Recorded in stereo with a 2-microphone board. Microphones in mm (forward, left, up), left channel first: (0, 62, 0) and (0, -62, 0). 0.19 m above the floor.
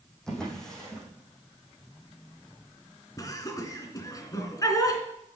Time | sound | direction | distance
0.3 | a drawer | 5° left (ahead or behind) | 4 m
3.2 | laughter | 30° left (ahead or behind) | 2.5 m